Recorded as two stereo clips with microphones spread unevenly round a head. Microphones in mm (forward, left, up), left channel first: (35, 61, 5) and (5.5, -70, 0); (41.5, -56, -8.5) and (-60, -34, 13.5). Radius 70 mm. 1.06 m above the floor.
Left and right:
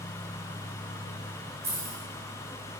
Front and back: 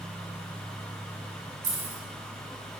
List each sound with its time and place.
1.6 s keys jangling: straight behind, 2.5 m